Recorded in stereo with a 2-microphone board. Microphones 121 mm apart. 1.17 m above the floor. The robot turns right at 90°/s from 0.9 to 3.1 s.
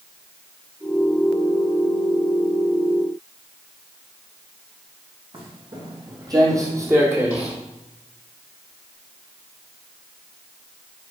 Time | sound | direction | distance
5.3 | footsteps | 45° right (ahead or behind) | 3 m